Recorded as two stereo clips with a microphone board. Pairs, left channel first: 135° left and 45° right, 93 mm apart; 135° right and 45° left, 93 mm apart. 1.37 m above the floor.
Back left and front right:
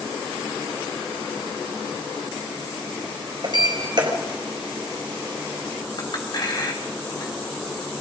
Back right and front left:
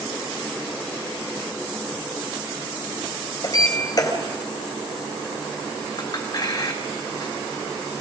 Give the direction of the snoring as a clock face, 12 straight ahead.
I don't hear snoring.